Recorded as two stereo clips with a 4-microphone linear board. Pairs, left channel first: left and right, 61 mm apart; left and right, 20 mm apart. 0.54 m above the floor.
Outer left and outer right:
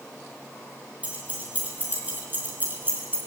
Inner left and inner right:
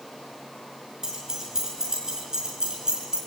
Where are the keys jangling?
25° right (ahead or behind), 5 m; by 3.2 s 35° right (ahead or behind), 4.5 m.